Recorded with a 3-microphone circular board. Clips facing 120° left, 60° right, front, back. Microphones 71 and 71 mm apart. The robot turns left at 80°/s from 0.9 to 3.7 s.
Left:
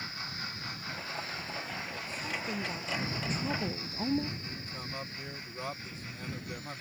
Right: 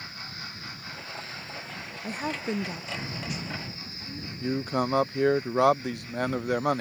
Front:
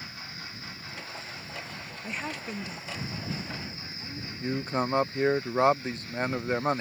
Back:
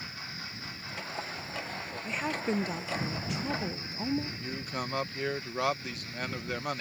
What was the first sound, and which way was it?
A woman speaking, 85° right.